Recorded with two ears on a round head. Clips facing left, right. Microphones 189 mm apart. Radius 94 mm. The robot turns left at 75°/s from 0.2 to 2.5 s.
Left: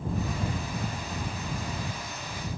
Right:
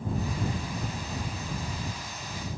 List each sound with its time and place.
Only background noise.